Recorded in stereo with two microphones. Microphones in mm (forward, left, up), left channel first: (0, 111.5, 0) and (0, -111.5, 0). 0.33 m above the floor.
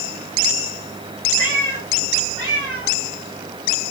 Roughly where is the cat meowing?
Left.